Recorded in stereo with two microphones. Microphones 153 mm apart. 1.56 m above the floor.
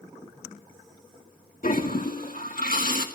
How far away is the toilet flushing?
About 2.0 m.